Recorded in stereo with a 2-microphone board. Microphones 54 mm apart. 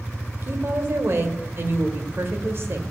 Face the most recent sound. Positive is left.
turn(degrees=-50)  # may be behind; listen again after turning